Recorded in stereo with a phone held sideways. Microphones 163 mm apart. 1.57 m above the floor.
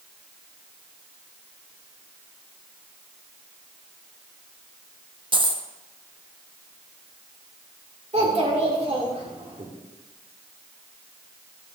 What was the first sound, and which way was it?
A dropped coin, 30° right (ahead or behind).